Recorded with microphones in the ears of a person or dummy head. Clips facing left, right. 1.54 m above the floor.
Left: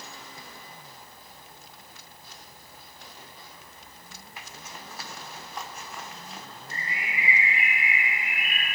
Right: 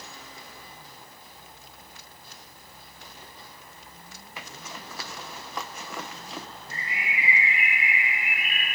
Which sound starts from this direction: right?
A zipper, at 4.4 s.